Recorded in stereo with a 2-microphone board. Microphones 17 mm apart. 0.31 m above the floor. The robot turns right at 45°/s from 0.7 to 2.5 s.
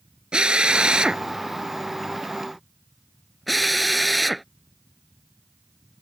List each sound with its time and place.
0.3 s a drill: 75° right (ahead or behind); by 4.5 s centre (ahead or behind)